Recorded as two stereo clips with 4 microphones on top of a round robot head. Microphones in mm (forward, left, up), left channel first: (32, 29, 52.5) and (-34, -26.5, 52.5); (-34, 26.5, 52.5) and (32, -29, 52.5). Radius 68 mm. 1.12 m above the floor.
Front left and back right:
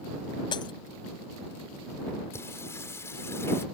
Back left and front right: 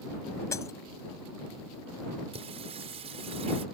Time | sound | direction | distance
0.5 | breaking glass | 80° left | ?
2.3 | singing | 25° right | ?